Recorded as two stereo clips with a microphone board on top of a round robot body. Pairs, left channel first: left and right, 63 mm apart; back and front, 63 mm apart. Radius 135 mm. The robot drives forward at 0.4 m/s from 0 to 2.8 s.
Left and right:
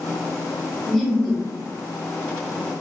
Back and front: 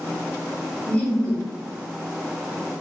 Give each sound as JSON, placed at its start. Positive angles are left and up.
{"t": 0.9, "sound": "laughter", "azimuth_deg": 165, "distance_m": 1.5}